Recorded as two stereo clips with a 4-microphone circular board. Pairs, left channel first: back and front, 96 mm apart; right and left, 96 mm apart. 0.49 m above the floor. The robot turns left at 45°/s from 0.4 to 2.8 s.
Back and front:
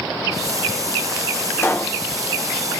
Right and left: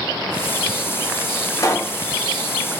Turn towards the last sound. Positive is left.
turn(degrees=-175)